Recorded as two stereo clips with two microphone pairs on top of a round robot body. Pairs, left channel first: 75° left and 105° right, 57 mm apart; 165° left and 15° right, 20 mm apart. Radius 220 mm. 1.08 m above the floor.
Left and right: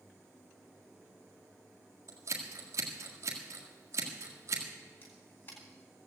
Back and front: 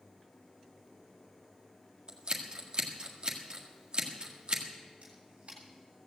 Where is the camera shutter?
25° left, 2.5 m.